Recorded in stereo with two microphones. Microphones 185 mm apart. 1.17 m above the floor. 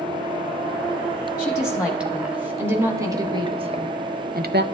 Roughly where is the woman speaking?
Centre.